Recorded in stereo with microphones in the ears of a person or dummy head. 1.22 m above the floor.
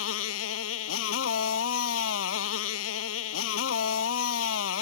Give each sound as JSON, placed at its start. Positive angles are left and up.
{"t": 0.0, "sound": "a motorcycle", "side_deg": 75}